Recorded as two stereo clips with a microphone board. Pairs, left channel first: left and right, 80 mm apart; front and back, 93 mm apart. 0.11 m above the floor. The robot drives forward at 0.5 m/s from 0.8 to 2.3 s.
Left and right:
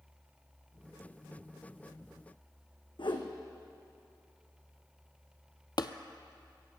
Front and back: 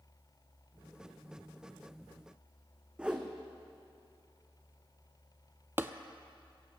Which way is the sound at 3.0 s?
100° left.